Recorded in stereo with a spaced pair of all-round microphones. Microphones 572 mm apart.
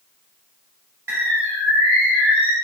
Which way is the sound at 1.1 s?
45° right (ahead or behind).